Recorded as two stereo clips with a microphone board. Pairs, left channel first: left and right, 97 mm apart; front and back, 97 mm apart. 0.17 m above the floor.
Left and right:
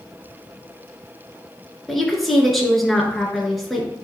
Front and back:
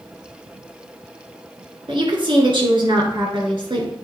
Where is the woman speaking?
Straight behind, 2.5 m.